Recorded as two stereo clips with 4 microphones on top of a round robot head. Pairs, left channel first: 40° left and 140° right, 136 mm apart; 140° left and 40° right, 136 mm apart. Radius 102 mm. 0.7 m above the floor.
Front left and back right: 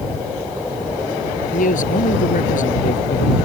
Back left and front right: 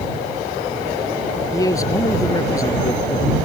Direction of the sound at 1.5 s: 70° left.